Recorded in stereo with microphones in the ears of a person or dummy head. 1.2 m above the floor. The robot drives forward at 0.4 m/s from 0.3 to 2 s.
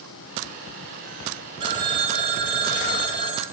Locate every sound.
1.6 s a phone ringing: 25° right (ahead or behind), 1.2 m; by 3.4 s 30° right (ahead or behind), 1.1 m